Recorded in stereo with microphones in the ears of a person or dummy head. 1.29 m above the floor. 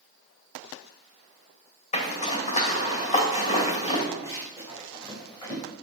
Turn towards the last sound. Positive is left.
turn(degrees=20)  # may be behind; listen again after turning